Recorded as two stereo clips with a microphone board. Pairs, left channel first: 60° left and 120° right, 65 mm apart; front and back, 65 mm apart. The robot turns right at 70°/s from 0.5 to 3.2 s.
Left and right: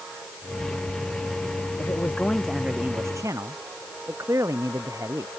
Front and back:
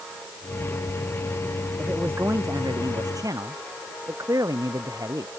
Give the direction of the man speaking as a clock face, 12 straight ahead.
9 o'clock.